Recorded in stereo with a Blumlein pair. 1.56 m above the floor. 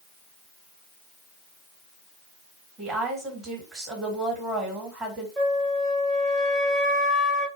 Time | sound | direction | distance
2.8 | a woman speaking | 15° right | 1.5 m
5.4 | a flute | 10° right | 1.3 m